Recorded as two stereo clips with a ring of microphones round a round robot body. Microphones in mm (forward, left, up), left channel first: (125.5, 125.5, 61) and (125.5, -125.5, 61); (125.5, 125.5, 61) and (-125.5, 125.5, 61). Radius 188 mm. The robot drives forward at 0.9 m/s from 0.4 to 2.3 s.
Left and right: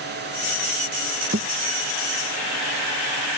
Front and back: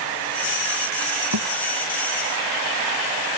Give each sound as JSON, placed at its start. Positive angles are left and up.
{"t": 1.3, "sound": "a thud", "azimuth_deg": -155}